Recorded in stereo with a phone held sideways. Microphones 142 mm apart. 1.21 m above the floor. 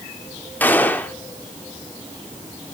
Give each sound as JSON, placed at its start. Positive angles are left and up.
{"t": 0.6, "sound": "a gunshot", "side_deg": 15, "distance_m": 0.9}